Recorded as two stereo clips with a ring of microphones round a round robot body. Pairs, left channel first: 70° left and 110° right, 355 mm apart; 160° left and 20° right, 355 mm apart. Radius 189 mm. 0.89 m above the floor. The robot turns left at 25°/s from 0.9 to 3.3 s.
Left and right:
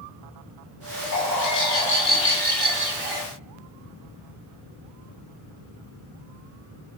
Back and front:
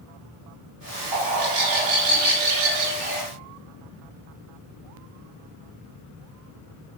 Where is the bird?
15° left, 1.2 m; by 3.2 s 35° right, 1.2 m.